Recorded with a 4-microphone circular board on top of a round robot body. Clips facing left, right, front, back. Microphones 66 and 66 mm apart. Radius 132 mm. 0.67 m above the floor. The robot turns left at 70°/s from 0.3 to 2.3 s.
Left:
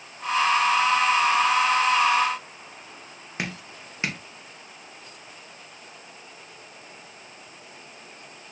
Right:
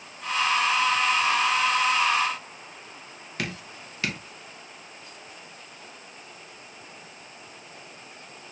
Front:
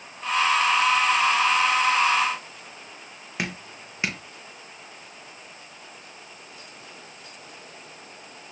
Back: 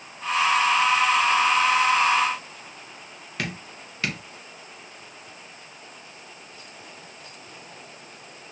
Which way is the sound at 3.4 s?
50° left.